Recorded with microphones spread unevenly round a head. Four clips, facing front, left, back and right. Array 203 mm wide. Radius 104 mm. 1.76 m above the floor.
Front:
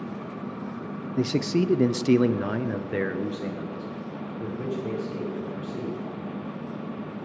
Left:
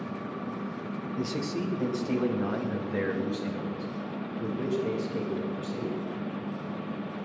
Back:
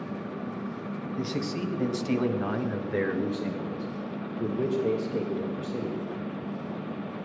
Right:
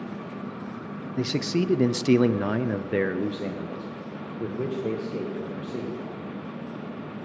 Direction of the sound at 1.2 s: 25° right.